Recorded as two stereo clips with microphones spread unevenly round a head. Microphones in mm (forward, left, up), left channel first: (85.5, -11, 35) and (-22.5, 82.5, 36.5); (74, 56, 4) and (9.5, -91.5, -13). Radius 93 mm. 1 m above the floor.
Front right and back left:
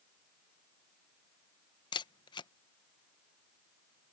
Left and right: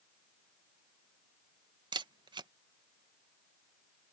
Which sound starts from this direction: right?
A camera shutter, at 1.9 s.